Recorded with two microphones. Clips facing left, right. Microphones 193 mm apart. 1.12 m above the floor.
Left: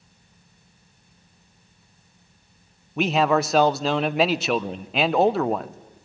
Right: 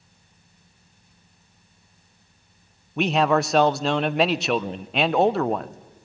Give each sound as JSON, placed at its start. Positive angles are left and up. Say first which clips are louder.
{"t": 3.0, "sound": "a man speaking", "louder": "even", "side_deg": 0, "distance_m": 0.7}